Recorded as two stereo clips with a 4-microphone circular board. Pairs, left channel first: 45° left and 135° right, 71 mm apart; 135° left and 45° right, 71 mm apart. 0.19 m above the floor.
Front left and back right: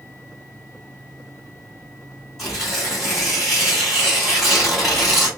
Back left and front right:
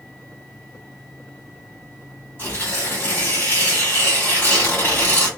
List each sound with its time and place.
2.4 s tearing paper: 135° left, 1.8 m